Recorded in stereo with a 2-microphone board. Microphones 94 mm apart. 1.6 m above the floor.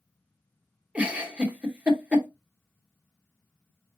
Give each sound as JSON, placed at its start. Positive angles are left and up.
{"t": 0.9, "sound": "a giggle", "side_deg": -15, "distance_m": 1.0}